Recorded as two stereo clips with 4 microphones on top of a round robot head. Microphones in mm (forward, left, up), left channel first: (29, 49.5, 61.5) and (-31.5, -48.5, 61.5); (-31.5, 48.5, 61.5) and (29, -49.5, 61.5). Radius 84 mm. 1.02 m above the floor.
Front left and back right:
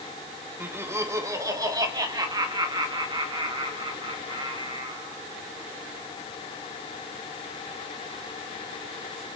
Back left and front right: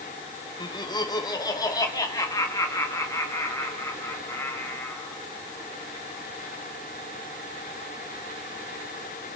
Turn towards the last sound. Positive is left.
turn(degrees=-170)